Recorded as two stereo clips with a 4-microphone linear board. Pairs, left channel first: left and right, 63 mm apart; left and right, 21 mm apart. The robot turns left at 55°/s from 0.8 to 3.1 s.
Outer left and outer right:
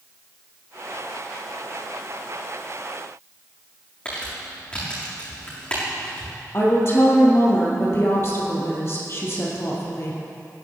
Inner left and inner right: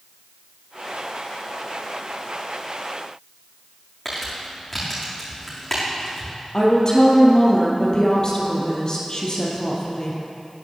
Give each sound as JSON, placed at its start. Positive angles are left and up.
{"t": 4.0, "sound": "crumpling", "side_deg": 20, "distance_m": 5.0}
{"t": 6.5, "sound": "a woman speaking", "side_deg": 40, "distance_m": 3.0}